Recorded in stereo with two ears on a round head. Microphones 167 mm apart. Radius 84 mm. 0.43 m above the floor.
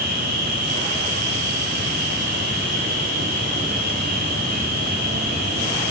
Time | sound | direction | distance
0.0 | an insect | 50° right (ahead or behind) | 6 m